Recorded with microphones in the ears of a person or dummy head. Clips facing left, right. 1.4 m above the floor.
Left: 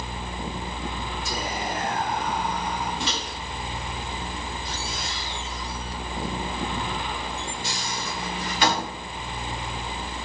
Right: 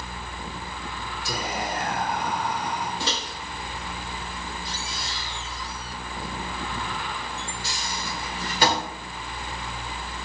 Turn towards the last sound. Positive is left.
turn(degrees=-30)  # may be behind; listen again after turning